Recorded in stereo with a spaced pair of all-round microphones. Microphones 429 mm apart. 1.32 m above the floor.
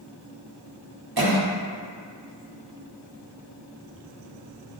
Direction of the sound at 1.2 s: 55° right (ahead or behind).